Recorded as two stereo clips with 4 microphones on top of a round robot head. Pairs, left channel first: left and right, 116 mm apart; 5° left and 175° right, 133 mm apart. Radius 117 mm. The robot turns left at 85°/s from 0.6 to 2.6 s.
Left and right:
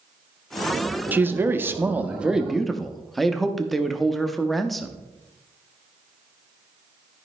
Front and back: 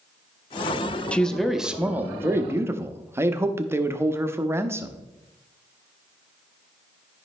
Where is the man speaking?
55° right, 0.8 m; by 5.0 s 175° left, 0.8 m.